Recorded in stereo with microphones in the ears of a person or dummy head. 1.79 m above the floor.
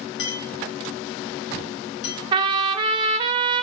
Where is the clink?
65° left (ahead or behind), 1.8 m.